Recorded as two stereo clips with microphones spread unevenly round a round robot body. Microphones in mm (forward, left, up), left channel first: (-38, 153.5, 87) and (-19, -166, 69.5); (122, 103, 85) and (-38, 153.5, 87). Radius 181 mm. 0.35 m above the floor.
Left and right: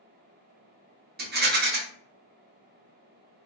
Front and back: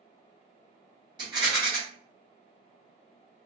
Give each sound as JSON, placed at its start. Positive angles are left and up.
{"t": 1.2, "sound": "a rattle", "azimuth_deg": -135, "distance_m": 1.1}